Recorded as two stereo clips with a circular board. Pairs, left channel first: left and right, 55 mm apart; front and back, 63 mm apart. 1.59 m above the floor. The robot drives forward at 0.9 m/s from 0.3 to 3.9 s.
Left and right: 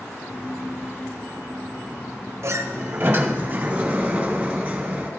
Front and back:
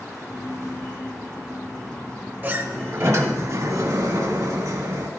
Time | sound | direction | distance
2.4 | a sliding door | 120° right | 1.0 m